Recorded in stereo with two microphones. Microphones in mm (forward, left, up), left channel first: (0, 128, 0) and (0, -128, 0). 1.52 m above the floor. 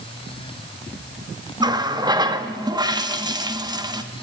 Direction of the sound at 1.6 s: 15° right (ahead or behind).